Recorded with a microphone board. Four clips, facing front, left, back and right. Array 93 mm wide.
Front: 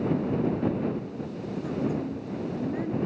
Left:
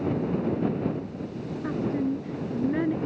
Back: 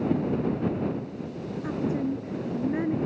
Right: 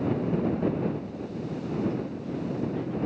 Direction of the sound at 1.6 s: 120° left.